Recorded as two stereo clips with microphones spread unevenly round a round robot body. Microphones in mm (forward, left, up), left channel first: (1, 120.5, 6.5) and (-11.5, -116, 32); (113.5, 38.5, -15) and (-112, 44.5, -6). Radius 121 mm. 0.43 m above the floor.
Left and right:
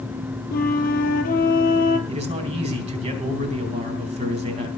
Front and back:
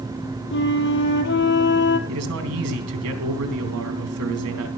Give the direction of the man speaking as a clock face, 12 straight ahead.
5 o'clock.